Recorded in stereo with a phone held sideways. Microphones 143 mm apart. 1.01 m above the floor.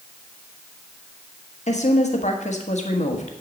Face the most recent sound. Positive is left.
turn(degrees=55)  # may be behind; listen again after turning